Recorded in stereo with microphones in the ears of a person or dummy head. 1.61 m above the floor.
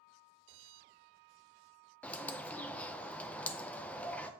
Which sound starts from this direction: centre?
A bird, at 2.0 s.